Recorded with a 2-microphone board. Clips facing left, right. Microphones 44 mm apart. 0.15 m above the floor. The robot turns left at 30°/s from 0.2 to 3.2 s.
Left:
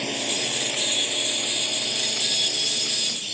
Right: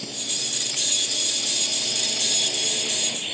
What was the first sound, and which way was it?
A drone, 65° left.